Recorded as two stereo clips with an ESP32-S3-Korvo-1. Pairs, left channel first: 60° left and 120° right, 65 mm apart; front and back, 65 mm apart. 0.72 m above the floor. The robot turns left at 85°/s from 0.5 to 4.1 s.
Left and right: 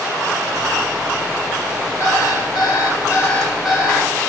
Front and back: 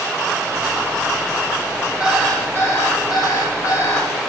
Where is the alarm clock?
110° left, 2 m; by 4.1 s 70° right, 2 m.